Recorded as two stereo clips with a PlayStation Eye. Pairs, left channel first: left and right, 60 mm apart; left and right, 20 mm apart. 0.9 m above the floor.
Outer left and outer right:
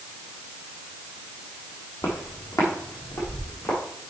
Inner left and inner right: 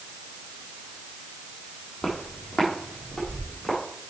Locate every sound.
2.0 s footsteps: 60° left (ahead or behind), 2.5 m; by 3.8 s 70° left (ahead or behind), 5 m